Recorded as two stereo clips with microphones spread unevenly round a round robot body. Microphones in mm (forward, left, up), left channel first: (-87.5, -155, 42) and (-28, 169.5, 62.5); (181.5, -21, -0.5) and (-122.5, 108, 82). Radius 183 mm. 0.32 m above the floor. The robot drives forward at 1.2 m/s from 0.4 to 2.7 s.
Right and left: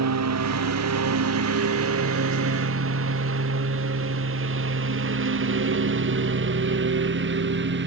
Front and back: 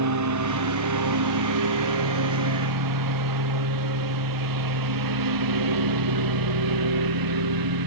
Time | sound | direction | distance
0.0 | a lawn mower | 120° left | ?